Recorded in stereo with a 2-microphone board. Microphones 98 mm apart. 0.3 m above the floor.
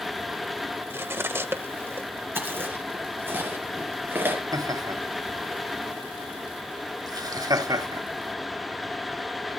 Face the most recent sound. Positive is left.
turn(degrees=-40)  # may be behind; listen again after turning